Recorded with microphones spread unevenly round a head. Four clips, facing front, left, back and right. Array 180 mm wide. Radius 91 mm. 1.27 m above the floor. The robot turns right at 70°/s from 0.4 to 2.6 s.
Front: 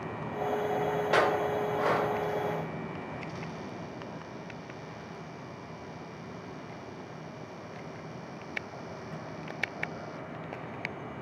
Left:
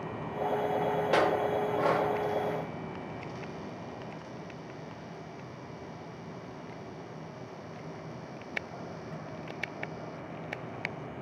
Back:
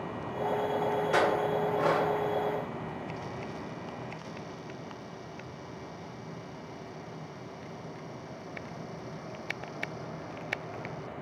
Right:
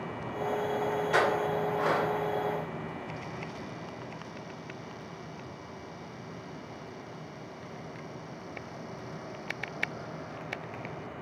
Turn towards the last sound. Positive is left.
turn(degrees=165)